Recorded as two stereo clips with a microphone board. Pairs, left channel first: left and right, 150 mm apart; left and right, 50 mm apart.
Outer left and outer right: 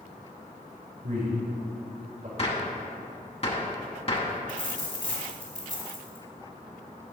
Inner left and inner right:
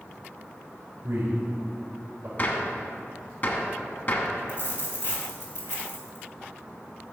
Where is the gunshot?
40° left (ahead or behind), 1.1 m.